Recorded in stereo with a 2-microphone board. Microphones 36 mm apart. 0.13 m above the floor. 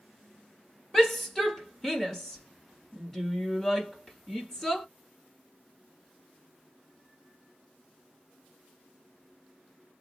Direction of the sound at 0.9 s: 15° left (ahead or behind).